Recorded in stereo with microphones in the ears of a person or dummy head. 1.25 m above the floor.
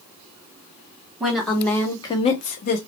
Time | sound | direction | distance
1.2 | a woman speaking | 10° right (ahead or behind) | 1.2 m